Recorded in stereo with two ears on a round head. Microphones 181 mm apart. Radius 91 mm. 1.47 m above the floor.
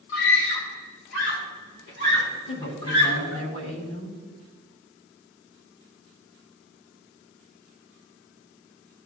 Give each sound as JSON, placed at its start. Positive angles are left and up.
{"t": 0.1, "sound": "a scream", "side_deg": 70, "distance_m": 2.5}
{"t": 2.5, "sound": "a woman speaking", "side_deg": 80, "distance_m": 3.5}